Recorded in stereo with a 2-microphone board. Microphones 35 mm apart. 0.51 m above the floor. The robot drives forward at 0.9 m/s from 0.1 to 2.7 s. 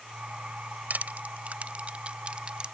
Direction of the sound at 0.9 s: 65° right (ahead or behind).